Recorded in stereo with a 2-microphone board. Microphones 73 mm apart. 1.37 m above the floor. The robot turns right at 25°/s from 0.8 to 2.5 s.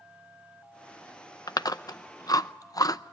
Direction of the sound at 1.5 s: 60° left (ahead or behind).